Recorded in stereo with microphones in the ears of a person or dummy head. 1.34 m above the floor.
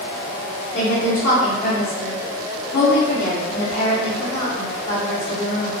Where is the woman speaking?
30° left (ahead or behind), 0.7 m.